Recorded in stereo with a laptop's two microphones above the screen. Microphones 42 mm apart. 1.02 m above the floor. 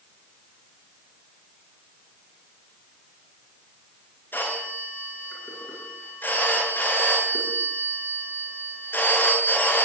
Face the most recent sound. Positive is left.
turn(degrees=60)  # may be behind; listen again after turning